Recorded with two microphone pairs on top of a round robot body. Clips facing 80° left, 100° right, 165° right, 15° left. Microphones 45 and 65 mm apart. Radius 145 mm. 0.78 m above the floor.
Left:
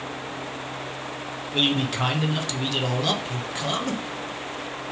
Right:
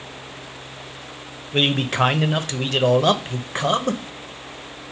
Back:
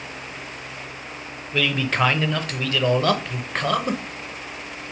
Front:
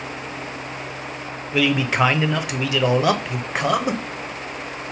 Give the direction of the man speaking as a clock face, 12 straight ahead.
3 o'clock.